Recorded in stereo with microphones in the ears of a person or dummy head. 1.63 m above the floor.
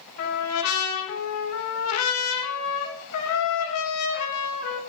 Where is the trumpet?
80° left, 3 m.